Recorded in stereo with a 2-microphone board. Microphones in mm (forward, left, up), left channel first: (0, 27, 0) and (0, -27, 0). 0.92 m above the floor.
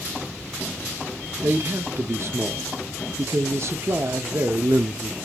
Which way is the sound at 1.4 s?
55° right (ahead or behind).